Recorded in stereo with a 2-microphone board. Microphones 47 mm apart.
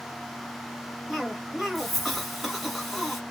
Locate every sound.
1.1 s a cough: centre (ahead or behind), 1.4 m